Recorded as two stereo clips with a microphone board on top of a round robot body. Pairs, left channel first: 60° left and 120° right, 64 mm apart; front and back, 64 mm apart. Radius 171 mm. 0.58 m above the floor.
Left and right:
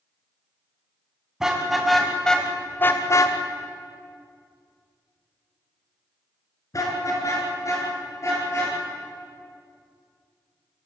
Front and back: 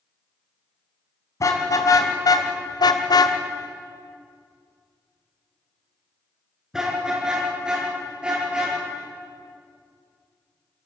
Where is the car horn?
35° right, 3.5 m; by 8.7 s 105° left, 8.5 m.